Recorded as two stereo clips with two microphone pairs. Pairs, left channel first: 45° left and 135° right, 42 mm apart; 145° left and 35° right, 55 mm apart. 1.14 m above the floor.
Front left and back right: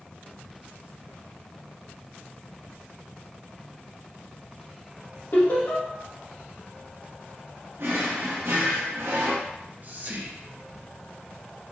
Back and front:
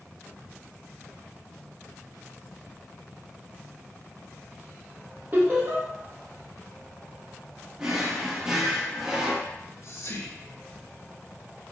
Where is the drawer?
110° right, 0.9 m.